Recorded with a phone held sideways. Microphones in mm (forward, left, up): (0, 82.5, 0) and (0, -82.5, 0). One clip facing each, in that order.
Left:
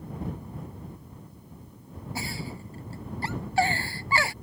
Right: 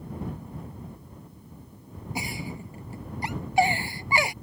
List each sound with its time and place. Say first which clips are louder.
2.1 s a giggle: right 2 dB; 15° right (ahead or behind)